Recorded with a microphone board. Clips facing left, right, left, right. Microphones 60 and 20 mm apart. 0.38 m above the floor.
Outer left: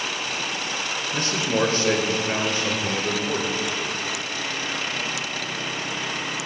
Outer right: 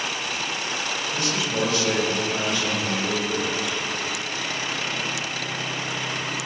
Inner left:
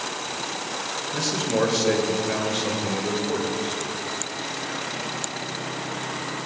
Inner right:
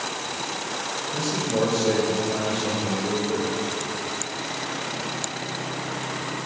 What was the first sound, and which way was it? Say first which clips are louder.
A man speaking: outer left 3 dB, inner left 1 dB; 40° left (ahead or behind).